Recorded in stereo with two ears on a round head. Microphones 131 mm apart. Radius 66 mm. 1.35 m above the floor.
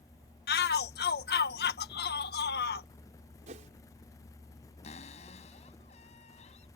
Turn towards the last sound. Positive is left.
turn(degrees=45)  # may be behind; listen again after turning